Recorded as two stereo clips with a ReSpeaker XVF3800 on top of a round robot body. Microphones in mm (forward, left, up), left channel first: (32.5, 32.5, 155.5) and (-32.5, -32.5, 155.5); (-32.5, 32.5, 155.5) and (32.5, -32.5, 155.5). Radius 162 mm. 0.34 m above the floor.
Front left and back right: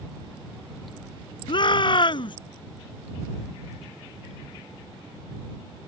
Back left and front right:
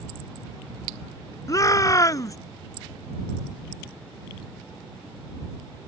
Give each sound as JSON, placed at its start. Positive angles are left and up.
{"t": 1.5, "sound": "a shout", "azimuth_deg": 80}